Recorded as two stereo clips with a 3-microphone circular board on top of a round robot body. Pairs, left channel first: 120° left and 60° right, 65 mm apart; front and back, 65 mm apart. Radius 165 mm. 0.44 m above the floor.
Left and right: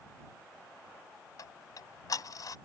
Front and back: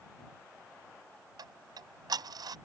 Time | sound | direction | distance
1.4 | ticking | 155° left | ?